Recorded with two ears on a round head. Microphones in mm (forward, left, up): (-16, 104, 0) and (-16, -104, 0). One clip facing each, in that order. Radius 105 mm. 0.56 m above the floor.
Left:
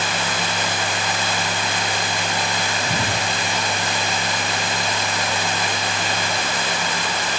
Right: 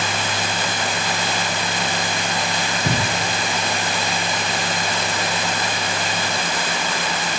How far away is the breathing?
About 10 m.